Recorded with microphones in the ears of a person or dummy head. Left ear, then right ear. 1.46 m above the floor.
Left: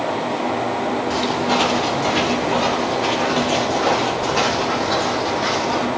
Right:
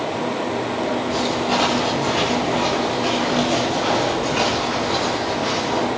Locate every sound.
1.1 s footsteps: 15° left (ahead or behind), 5.5 m; by 5.9 s 35° left (ahead or behind), 3 m